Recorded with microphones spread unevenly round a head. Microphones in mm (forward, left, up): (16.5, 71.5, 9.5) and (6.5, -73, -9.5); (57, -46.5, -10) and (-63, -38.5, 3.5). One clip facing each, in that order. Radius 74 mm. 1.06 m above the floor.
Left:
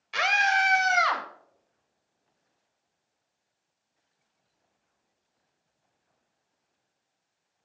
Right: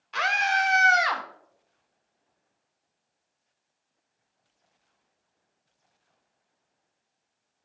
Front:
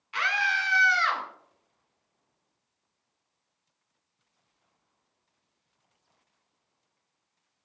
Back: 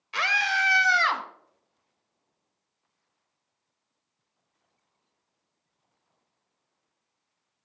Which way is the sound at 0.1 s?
160° left.